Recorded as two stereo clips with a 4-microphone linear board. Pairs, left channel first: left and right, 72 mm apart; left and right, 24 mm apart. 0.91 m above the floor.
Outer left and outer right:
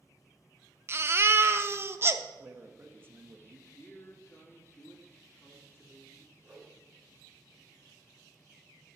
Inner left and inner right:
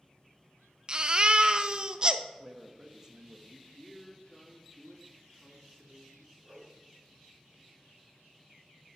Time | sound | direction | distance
0.9 | a baby crying | 35° right (ahead or behind) | 0.5 m
2.4 | a man speaking | 30° right (ahead or behind) | 1.1 m
3.7 | a man speaking | 35° left (ahead or behind) | 2.5 m
6.4 | a whoosh | 20° right (ahead or behind) | 4.5 m